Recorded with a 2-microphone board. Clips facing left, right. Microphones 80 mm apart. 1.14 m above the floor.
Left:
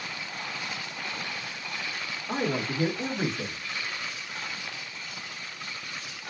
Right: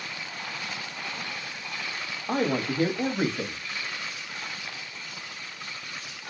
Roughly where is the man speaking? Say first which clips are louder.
Right 3 dB; right.